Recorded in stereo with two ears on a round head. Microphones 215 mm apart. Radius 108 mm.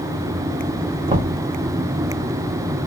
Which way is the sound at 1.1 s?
25° right (ahead or behind).